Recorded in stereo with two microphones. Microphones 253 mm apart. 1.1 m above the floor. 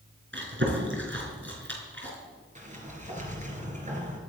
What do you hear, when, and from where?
0.3 s chewing: 50° right (ahead or behind), 4 m
2.5 s a sliding door: 30° right (ahead or behind), 3 m